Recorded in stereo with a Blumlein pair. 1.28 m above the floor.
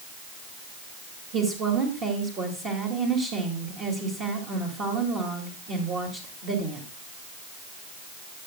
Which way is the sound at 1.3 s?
30° right.